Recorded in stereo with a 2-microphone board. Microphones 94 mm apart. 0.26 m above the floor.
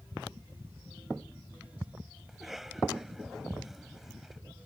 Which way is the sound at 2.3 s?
5° right (ahead or behind).